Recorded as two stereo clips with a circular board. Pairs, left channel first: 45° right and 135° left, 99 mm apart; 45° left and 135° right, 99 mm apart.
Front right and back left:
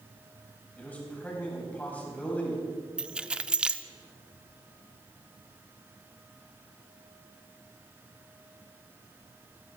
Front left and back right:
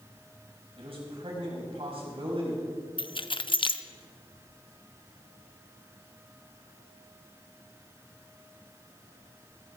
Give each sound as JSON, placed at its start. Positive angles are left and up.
{"t": 0.8, "sound": "a man speaking", "azimuth_deg": -120, "distance_m": 4.5}
{"t": 3.0, "sound": "keys jangling", "azimuth_deg": 55, "distance_m": 0.5}